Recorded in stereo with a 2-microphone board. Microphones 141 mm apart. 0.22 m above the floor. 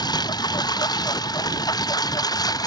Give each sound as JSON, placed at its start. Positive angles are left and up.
{"t": 0.0, "sound": "a lawn mower", "side_deg": 30}